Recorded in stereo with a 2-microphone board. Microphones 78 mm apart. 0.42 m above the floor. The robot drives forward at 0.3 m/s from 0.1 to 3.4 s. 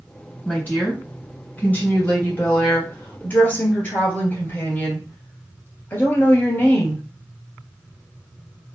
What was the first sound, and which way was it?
A woman speaking, 20° left (ahead or behind).